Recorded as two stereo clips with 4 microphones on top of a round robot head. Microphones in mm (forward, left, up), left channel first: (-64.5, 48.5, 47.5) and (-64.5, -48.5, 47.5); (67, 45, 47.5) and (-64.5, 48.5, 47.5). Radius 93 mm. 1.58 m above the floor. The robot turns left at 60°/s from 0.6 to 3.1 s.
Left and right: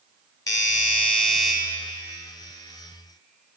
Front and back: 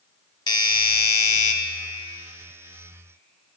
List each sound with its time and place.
0.5 s a doorbell: 45° left, 0.8 m; by 1.5 s 10° right, 0.8 m